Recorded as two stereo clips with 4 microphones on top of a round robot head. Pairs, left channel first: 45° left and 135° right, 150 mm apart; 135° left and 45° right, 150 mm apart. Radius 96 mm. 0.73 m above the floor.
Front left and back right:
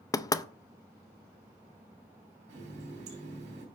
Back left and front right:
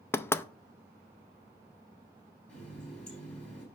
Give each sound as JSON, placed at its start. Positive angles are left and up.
{"t": 0.1, "sound": "knocking", "azimuth_deg": 80, "distance_m": 0.6}
{"t": 2.5, "sound": "a running tap", "azimuth_deg": -145, "distance_m": 3.5}